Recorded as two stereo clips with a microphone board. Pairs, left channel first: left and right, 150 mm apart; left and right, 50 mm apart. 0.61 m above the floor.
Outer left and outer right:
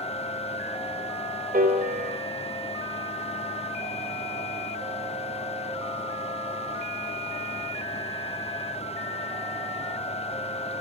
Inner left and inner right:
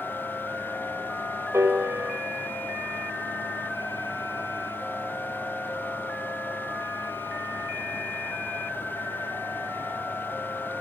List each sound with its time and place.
1.5 s a piano: 70° right (ahead or behind), 2 m